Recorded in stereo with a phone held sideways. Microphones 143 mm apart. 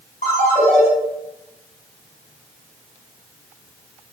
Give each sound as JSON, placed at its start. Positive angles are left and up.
{"t": 0.2, "sound": "a ringtone", "side_deg": 70, "distance_m": 2.5}